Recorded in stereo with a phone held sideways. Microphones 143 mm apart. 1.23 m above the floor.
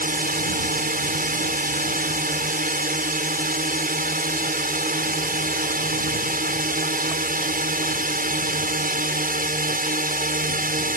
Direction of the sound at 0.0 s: 70° right (ahead or behind).